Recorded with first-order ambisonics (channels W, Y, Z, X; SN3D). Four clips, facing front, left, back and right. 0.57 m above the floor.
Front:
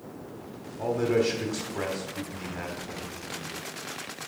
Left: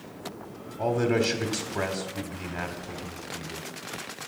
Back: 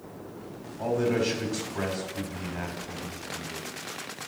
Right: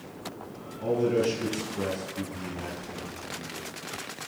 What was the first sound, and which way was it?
A man speaking, 85° left.